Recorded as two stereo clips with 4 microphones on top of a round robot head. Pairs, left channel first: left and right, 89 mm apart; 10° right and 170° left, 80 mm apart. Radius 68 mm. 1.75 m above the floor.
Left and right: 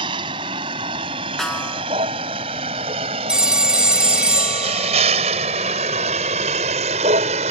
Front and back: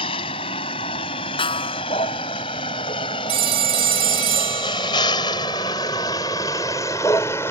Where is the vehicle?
40° right; by 7.5 s 80° right.